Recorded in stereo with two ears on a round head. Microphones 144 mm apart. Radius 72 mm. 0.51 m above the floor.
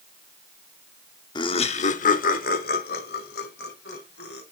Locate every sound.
1.4 s laughter: 25° left (ahead or behind), 0.9 m; by 4.4 s 75° left (ahead or behind), 3.5 m